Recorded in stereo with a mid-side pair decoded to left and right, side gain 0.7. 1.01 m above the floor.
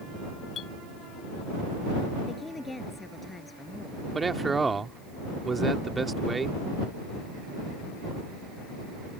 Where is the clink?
40° left.